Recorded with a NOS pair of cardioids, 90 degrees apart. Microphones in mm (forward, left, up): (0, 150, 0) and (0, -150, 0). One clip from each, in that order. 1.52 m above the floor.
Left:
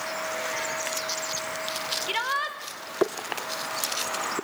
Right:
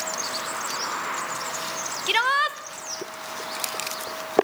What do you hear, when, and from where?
2.1 s a shout: 40° right, 1.3 m